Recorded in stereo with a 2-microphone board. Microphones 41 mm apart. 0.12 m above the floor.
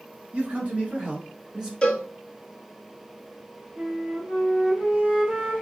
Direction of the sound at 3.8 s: 15° right (ahead or behind).